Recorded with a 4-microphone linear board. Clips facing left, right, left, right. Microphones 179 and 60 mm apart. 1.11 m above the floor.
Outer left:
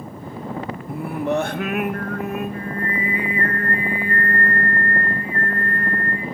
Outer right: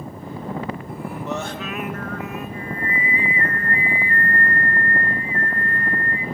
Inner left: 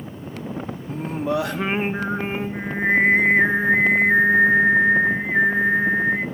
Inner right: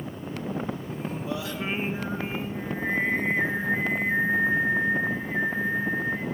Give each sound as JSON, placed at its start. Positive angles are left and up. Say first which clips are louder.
{"t": 0.9, "sound": "singing", "louder": "outer left 5 dB, inner left 7 dB", "side_deg": 60, "distance_m": 2.0}